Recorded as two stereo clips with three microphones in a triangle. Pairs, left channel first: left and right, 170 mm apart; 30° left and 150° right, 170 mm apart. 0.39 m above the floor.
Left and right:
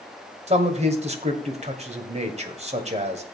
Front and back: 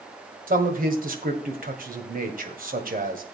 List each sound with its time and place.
0.5 s a man speaking: 135° right, 1.9 m